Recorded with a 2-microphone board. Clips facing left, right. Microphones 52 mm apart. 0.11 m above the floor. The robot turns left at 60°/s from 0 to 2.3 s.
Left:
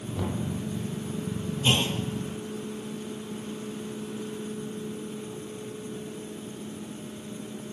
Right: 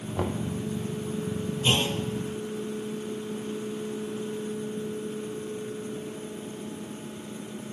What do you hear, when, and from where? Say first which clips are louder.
0.2 s knocking: right 2 dB; 45° right (ahead or behind), 2.5 m; by 0.5 s 25° right (ahead or behind), 2.5 m
1.6 s a clunk: even; 5° left (ahead or behind), 3 m; by 2.0 s 15° right (ahead or behind), 3 m